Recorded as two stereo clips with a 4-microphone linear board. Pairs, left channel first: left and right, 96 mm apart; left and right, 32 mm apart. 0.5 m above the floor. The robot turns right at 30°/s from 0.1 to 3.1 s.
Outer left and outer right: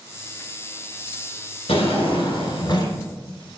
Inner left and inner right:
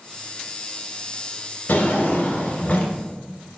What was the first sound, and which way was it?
A drawer, 100° left.